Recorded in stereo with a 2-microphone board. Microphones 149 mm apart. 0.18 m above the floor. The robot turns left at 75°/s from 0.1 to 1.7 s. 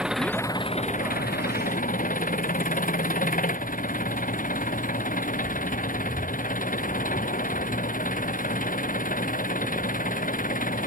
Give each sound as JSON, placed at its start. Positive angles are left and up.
{"t": 0.0, "sound": "an engine running", "azimuth_deg": -175}